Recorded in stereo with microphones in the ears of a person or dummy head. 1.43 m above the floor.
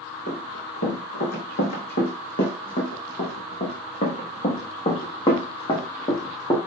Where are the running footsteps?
50° left (ahead or behind), 5.5 m; by 6.6 s 20° left (ahead or behind), 3 m.